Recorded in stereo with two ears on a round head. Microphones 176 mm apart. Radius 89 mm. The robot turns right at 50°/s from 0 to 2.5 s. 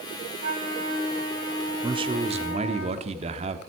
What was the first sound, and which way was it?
A flute, 40° right.